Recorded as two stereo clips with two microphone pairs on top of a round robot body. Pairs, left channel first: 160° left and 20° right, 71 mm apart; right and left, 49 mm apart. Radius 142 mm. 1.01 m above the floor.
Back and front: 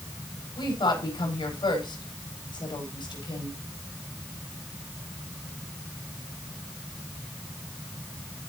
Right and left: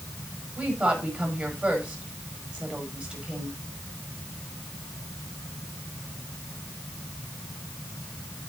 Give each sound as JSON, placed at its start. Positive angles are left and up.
{"t": 0.6, "sound": "a woman speaking", "azimuth_deg": 150, "distance_m": 5.0}